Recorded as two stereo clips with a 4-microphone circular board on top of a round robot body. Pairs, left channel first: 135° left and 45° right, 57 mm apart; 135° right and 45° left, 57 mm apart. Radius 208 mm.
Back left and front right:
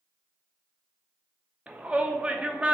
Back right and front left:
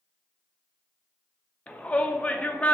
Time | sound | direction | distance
1.7 | a shout | 90° right | 0.7 m